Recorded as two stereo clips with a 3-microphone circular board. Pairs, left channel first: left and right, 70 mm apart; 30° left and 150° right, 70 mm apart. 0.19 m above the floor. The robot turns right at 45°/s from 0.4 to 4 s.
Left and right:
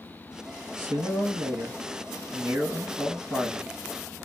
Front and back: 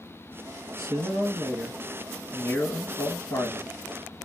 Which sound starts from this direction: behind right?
A man speaking, at 0.8 s.